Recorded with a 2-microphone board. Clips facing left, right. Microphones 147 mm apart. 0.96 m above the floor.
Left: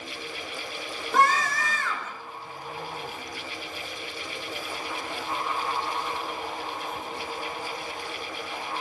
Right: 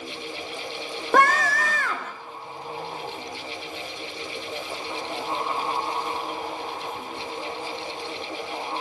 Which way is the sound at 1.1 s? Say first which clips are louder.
Right 3 dB; 70° right (ahead or behind).